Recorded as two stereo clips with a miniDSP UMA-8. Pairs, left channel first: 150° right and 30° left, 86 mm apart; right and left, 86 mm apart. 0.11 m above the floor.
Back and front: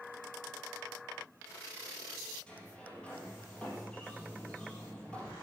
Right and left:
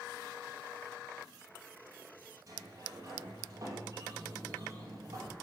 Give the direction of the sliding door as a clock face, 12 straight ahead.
8 o'clock.